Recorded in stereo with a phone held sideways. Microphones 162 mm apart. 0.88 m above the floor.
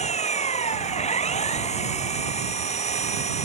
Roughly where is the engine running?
Left.